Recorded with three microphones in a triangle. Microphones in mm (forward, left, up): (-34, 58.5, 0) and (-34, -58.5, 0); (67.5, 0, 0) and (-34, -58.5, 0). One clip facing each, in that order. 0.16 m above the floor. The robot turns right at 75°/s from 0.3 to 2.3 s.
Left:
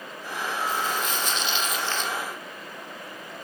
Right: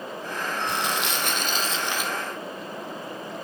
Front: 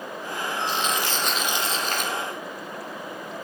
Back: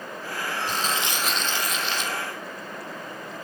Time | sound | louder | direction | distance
0.7 | crumpling | even, front 1 dB | 110° right | 1.5 m